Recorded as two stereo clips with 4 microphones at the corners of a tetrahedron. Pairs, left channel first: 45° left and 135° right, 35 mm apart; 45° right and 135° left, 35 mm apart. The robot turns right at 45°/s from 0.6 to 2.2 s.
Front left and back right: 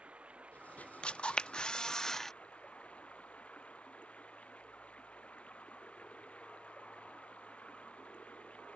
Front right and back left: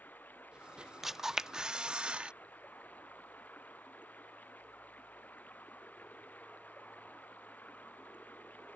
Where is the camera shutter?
60° left; by 2.3 s 110° left.